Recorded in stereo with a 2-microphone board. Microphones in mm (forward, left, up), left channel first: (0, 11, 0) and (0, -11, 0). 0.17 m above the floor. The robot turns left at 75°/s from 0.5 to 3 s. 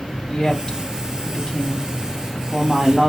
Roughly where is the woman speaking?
Centre.